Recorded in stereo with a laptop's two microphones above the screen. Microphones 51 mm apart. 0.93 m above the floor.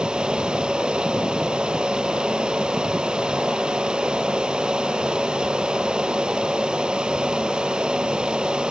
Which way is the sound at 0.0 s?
20° right (ahead or behind).